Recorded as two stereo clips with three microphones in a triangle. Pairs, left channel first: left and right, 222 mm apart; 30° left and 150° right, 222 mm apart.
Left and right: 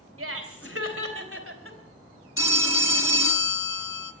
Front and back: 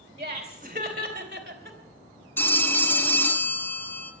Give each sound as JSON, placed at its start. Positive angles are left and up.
{"t": 0.2, "sound": "laughter", "azimuth_deg": -90, "distance_m": 3.5}
{"t": 2.4, "sound": "a phone ringing", "azimuth_deg": 110, "distance_m": 1.3}